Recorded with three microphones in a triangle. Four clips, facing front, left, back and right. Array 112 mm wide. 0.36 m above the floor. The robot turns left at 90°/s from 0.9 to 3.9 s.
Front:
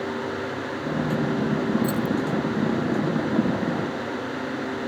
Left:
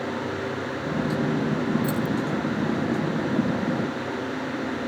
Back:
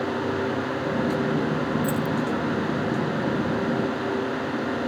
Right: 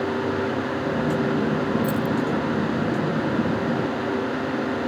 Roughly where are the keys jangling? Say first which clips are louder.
Right 2 dB, front 1 dB; left.